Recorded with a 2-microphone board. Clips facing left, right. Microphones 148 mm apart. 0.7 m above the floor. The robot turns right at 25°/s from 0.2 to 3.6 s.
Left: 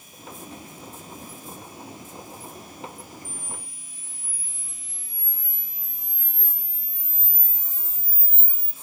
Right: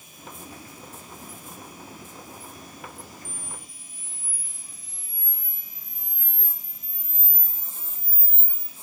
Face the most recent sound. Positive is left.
turn(degrees=-70)  # may be behind; listen again after turning